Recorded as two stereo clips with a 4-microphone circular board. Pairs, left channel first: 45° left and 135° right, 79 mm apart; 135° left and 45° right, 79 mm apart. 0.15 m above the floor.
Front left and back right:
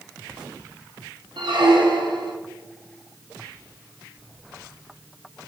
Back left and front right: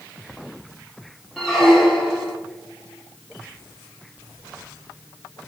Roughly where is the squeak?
Behind right.